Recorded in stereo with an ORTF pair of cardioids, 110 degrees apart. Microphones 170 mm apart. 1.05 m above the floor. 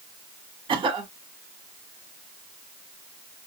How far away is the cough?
About 1.3 m.